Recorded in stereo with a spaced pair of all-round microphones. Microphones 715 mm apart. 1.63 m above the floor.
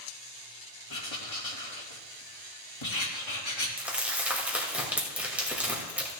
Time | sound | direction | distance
0.9 | writing | 40° left (ahead or behind) | 1.9 m
3.8 | crumpling | centre (ahead or behind) | 2.5 m